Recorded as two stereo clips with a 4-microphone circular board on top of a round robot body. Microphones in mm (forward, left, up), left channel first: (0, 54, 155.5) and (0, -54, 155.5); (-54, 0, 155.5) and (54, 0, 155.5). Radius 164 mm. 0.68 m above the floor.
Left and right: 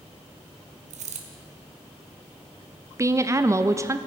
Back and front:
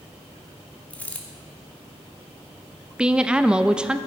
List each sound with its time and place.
0.9 s a dropped coin: 100° right, 0.8 m
3.0 s a woman speaking: 70° right, 0.6 m